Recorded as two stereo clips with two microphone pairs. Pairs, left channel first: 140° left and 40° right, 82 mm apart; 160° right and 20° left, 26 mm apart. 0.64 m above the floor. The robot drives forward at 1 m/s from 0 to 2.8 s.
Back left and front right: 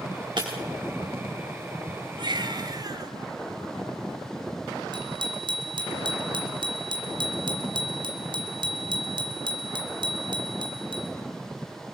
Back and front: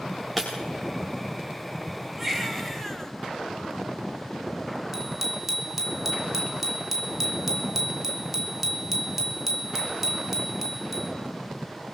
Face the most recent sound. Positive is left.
turn(degrees=-60)